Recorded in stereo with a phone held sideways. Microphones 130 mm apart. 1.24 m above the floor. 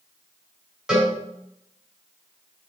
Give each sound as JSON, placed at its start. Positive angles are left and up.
{"t": 0.9, "sound": "a cowbell", "side_deg": -5, "distance_m": 4.0}